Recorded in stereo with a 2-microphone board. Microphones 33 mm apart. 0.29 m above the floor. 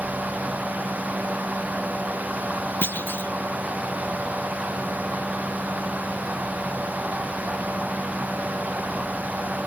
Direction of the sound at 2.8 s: 85° left.